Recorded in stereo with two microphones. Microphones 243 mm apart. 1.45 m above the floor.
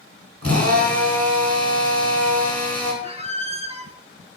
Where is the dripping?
No dripping in this recording.